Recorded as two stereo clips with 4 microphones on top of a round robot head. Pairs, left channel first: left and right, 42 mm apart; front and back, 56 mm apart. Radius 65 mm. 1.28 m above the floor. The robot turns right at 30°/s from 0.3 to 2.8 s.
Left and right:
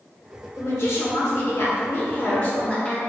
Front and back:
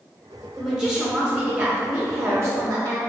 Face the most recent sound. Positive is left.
turn(degrees=155)